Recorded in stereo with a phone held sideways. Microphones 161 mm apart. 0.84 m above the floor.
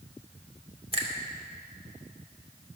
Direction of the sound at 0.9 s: 35° right (ahead or behind).